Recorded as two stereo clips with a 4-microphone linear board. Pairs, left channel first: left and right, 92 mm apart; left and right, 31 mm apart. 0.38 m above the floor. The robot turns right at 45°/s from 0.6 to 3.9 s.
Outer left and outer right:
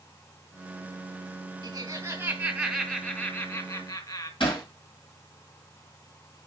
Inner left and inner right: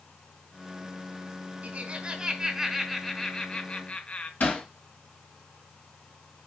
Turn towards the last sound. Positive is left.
turn(degrees=65)  # may be behind; listen again after turning